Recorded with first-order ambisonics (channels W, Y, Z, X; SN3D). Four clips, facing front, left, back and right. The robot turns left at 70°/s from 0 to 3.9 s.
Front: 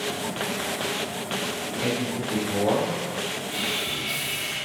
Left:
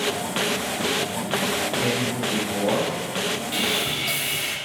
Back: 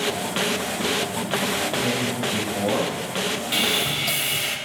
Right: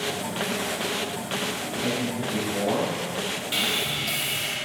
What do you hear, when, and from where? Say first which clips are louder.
1.8 s a man speaking: left 3 dB, back 3 dB; 70° left, 5.5 m; by 3.4 s 40° right, 5.5 m
3.5 s sawing: even, back 7 dB; 160° right, 2 m; by 4.6 s 170° left, 2 m